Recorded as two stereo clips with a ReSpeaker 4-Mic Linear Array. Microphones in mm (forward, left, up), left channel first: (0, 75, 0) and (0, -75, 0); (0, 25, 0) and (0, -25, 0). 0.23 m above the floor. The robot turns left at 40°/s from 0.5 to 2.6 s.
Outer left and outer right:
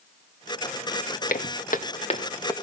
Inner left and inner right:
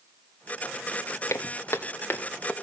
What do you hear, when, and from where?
1.3 s footsteps: 85° left, 1.8 m; by 2.5 s 20° left (ahead or behind), 2 m